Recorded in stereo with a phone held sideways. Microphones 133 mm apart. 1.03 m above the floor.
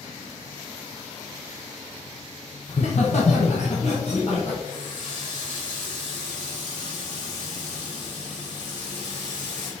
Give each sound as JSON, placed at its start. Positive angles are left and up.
{"t": 2.7, "sound": "laughter", "side_deg": 55, "distance_m": 0.8}
{"t": 4.7, "sound": "a running tap", "side_deg": 65, "distance_m": 3.5}